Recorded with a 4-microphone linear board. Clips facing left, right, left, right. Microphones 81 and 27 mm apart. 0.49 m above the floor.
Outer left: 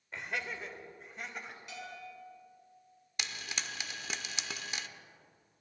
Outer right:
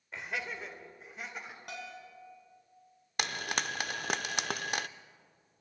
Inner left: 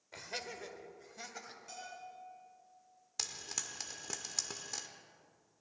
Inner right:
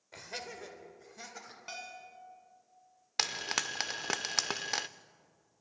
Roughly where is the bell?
Right.